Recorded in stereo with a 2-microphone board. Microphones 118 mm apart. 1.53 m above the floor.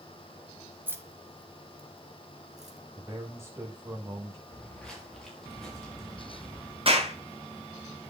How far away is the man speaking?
About 7.5 m.